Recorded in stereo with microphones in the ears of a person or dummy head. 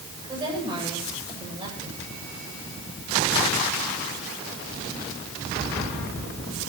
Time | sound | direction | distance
0.2 | a woman speaking | 25° right (ahead or behind) | 8 m